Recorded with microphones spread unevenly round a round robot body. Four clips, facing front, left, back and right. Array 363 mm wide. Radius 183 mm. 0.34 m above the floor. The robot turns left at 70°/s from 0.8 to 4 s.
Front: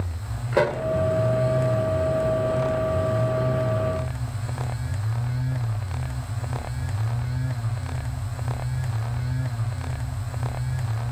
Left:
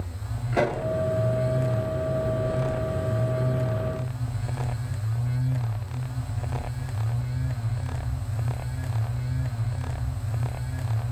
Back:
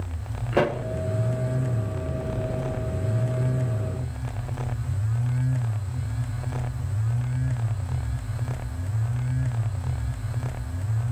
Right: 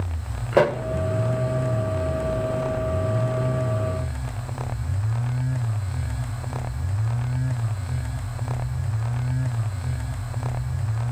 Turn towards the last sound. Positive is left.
turn(degrees=55)